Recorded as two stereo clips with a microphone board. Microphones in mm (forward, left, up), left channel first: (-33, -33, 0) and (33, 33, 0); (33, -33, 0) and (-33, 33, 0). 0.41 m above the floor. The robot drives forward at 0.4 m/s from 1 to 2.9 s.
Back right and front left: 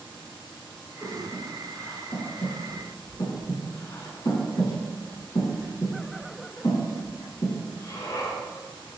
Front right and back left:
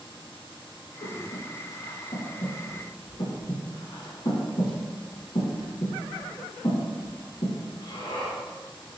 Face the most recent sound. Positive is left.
turn(degrees=-85)